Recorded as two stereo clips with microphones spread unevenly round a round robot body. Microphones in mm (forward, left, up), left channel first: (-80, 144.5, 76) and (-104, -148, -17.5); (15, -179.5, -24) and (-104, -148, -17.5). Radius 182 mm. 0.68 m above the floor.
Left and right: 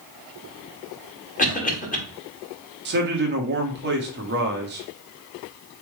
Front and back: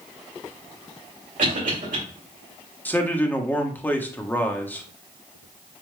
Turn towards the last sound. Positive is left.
turn(degrees=-85)